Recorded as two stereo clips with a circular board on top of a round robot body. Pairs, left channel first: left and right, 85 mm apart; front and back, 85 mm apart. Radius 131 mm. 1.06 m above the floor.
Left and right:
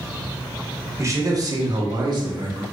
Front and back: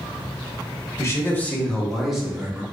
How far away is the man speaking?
About 0.9 m.